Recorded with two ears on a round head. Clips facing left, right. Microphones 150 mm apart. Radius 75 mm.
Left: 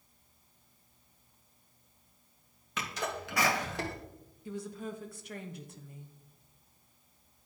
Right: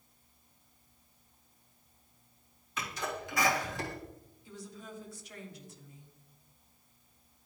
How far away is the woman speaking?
About 0.9 m.